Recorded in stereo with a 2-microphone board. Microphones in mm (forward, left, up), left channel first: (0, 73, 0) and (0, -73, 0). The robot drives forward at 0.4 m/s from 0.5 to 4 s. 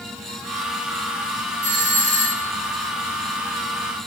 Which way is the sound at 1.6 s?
15° left (ahead or behind).